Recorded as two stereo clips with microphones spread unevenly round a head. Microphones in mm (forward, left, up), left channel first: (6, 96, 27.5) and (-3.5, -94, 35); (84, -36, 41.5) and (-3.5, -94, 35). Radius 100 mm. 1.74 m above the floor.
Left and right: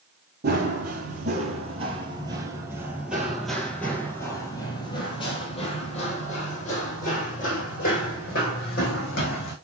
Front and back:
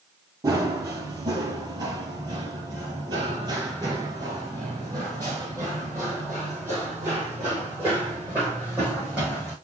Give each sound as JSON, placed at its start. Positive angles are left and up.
{"t": 0.4, "sound": "running footsteps", "azimuth_deg": -100, "distance_m": 2.5}